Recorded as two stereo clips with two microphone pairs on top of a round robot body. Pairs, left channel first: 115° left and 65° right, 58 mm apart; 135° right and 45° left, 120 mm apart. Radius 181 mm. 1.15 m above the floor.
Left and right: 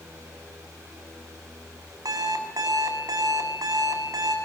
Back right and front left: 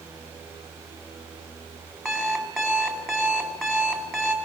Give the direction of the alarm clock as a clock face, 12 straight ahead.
2 o'clock.